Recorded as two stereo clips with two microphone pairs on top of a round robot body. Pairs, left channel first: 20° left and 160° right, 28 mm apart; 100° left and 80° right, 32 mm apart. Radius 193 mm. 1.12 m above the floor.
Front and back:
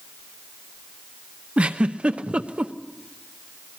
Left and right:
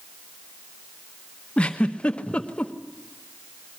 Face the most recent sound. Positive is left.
turn(degrees=155)